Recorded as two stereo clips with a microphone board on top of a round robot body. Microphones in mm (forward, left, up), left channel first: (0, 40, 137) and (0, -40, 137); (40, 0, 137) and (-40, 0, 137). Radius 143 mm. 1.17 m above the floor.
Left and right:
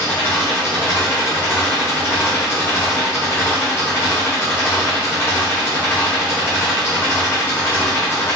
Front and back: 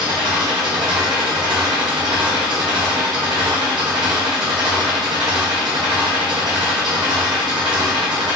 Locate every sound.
0.0 s an engine running: 150° left, 0.8 m